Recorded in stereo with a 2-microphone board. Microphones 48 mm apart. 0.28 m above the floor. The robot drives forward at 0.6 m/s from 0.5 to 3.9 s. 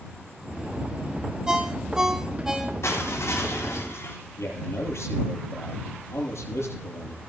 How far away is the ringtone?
About 1.1 m.